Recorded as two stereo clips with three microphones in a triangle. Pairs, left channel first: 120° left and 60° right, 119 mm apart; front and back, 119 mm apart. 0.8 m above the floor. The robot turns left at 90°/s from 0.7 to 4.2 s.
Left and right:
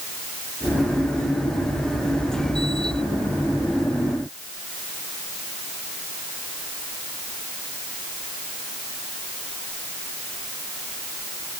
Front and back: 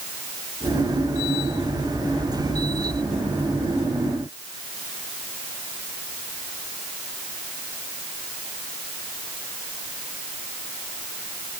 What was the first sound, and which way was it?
Only background noise.